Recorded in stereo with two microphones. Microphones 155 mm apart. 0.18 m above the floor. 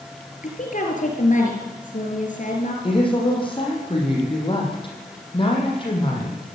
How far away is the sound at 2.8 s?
About 7 m.